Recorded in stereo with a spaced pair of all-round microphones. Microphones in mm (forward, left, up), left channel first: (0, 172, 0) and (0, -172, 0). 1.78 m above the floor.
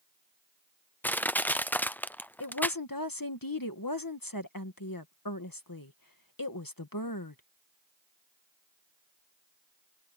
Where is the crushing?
5° left (ahead or behind).